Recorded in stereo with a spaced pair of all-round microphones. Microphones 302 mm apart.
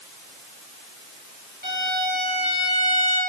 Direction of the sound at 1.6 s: 35° right (ahead or behind).